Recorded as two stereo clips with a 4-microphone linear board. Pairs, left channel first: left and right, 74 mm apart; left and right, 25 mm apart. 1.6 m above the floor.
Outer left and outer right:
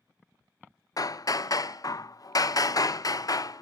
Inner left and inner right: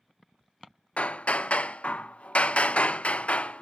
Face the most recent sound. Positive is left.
turn(degrees=55)  # may be behind; listen again after turning